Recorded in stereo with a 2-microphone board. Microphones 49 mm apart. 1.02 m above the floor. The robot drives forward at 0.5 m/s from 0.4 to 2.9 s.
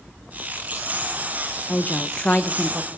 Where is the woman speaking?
35° left (ahead or behind), 0.7 m; by 2.9 s 20° left (ahead or behind), 1.0 m.